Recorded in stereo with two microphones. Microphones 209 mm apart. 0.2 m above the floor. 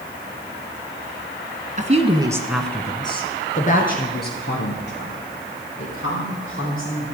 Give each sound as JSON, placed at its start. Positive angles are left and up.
{"t": 1.8, "sound": "a woman speaking", "side_deg": -40, "distance_m": 1.7}